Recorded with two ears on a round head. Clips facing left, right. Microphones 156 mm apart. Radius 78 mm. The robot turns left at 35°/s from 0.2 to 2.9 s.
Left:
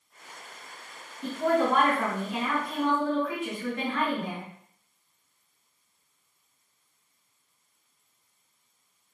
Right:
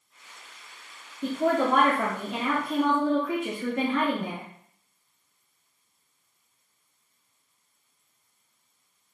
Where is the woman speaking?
55° right, 1.1 m; by 4.5 s 115° right, 1.1 m.